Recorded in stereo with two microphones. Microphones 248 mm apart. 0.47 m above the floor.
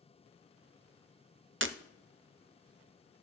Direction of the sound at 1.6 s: 55° right (ahead or behind).